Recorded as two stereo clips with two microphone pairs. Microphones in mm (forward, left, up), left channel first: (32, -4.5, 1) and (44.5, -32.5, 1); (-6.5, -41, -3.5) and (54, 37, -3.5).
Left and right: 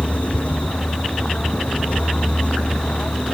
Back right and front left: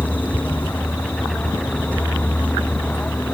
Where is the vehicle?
160° left.